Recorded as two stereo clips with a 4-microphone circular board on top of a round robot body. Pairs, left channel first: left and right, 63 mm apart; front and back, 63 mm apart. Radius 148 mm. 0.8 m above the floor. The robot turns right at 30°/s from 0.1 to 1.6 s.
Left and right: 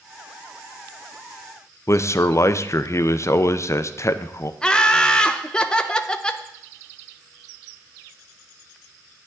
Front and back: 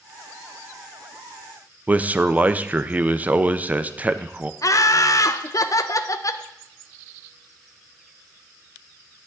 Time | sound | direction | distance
1.9 | a man speaking | 120° left | 0.7 m
4.6 | laughter | 15° left | 0.7 m